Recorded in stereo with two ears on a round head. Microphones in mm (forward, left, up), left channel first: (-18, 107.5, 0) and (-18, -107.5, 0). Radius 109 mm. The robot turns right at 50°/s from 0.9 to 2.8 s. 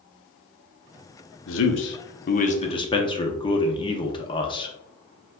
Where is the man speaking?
85° left, 0.9 m; by 4.8 s 155° left, 0.9 m.